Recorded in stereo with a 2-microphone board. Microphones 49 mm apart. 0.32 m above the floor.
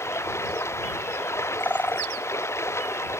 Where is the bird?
40° left (ahead or behind).